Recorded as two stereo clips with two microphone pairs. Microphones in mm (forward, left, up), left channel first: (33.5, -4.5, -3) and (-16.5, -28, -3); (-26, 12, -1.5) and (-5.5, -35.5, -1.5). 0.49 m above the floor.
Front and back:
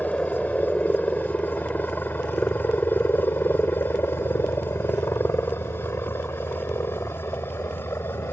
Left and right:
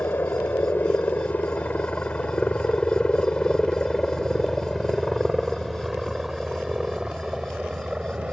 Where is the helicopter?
85° left; by 8.3 s 5° left.